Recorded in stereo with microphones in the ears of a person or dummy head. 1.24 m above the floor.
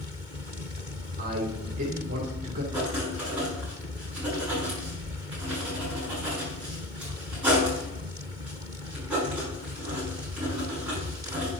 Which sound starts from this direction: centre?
Writing, at 2.7 s.